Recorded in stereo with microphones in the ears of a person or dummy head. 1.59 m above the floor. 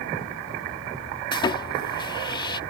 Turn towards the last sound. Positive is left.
turn(degrees=25)  # may be behind; listen again after turning